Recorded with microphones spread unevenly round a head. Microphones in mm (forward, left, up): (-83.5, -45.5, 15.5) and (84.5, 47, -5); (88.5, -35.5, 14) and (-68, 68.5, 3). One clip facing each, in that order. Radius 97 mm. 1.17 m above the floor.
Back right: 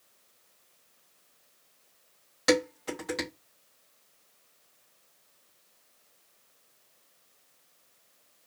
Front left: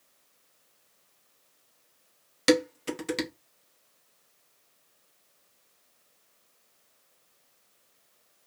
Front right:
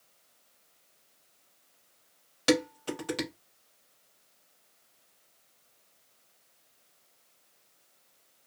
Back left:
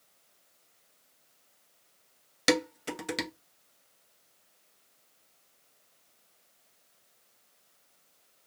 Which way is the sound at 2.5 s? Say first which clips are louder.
Front left 2 dB, front right 2 dB; 80° left.